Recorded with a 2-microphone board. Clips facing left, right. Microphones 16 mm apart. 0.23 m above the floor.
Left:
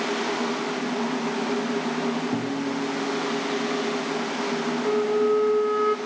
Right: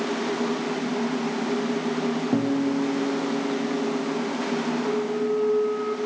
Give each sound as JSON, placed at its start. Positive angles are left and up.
{"t": 2.3, "sound": "a guitar", "side_deg": -40, "distance_m": 4.5}
{"t": 4.8, "sound": "a flute", "side_deg": 40, "distance_m": 1.8}